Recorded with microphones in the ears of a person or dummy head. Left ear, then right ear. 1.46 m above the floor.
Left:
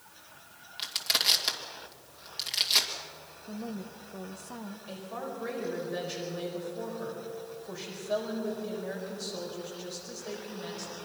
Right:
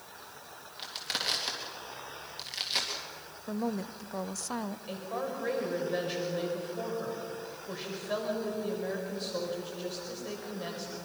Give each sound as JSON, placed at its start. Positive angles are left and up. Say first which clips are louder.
{"t": 0.8, "sound": "crushing", "louder": "left 6 dB", "side_deg": 25, "distance_m": 2.5}
{"t": 3.5, "sound": "a woman speaking", "louder": "right 6 dB", "side_deg": -80, "distance_m": 0.9}
{"t": 4.9, "sound": "a woman speaking", "louder": "right 2 dB", "side_deg": -15, "distance_m": 5.5}